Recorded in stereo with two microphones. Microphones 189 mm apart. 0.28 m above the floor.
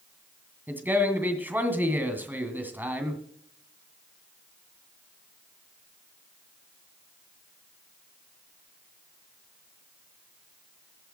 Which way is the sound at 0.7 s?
10° right (ahead or behind).